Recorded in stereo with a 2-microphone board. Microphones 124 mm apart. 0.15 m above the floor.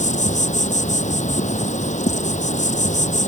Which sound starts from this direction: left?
An insect, at 0.0 s.